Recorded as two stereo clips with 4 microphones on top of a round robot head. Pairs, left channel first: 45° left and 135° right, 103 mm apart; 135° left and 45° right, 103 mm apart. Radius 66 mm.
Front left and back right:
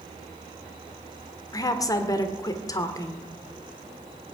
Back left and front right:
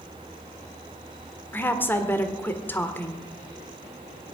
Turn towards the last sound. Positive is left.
turn(degrees=75)